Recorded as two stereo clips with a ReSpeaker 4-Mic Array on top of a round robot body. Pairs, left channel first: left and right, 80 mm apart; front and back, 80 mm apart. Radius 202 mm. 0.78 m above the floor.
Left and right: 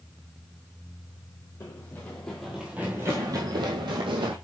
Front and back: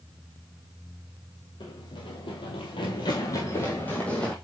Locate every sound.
1.6 s running footsteps: 30° left, 1.8 m; by 4.3 s 80° right, 1.9 m